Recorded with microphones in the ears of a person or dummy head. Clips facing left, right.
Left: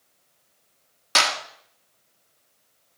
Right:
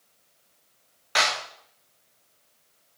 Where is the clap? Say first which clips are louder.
Left 1 dB; 55° left (ahead or behind), 1.9 m.